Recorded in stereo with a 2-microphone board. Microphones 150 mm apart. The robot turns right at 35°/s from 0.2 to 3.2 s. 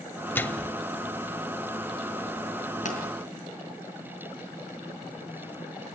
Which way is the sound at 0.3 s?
15° left (ahead or behind).